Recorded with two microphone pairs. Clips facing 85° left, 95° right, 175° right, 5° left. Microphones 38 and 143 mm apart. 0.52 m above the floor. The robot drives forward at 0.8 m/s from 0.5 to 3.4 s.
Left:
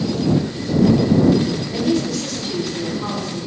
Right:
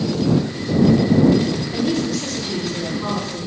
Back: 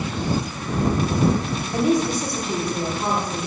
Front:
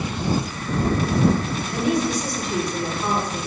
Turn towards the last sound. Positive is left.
turn(degrees=180)